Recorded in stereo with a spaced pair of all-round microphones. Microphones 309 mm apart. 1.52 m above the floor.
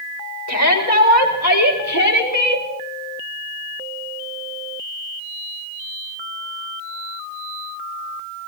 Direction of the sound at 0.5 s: 65° left (ahead or behind).